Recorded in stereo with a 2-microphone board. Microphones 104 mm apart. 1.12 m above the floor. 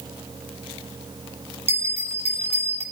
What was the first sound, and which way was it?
A bell, 85° right.